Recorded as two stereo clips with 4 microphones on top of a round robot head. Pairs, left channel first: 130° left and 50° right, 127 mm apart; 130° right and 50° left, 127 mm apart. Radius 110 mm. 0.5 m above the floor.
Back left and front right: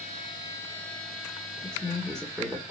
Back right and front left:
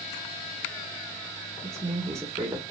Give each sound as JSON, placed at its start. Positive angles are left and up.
{"t": 1.6, "sound": "a woman speaking", "azimuth_deg": 50, "distance_m": 1.3}